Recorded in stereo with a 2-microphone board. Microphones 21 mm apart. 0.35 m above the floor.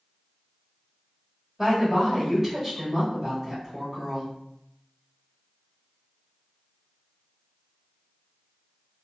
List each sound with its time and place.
1.6 s a woman speaking: 10° right (ahead or behind), 1.3 m